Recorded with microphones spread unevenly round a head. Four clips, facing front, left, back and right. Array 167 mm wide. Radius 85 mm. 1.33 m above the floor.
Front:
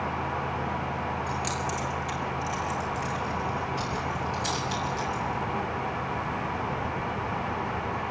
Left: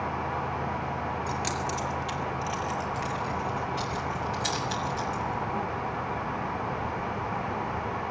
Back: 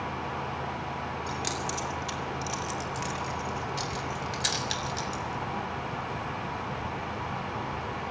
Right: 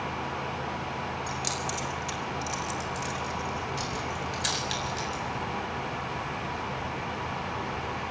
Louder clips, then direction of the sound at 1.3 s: Left 2 dB, front 3 dB; 160° left.